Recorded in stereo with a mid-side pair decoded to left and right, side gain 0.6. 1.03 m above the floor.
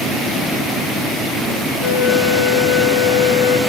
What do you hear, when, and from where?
1.8 s a flute: 45° left, 2.5 m